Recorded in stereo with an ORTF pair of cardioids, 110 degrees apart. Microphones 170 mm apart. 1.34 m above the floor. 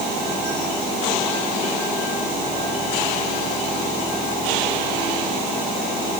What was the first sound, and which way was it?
Only background noise.